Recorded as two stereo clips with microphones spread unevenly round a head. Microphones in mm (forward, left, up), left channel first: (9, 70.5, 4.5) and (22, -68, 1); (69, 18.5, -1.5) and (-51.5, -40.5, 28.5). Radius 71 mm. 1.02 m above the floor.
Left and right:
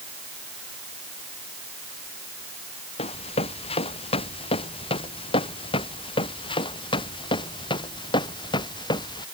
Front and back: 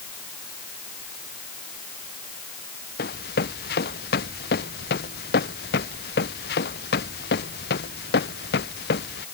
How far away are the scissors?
I don't hear scissors.